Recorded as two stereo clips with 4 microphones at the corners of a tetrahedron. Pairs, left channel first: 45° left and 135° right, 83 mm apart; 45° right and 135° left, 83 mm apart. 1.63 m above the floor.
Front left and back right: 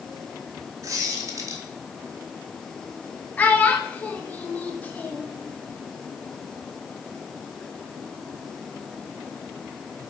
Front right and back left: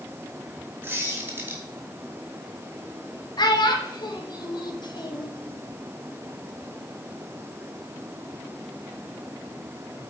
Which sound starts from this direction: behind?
A squeak, at 0.8 s.